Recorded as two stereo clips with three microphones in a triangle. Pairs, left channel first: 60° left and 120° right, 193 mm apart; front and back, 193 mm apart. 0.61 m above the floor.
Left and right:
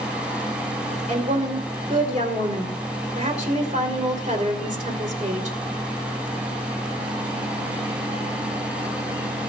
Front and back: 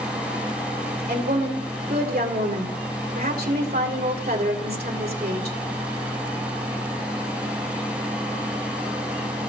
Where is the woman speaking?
160° right, 2 m.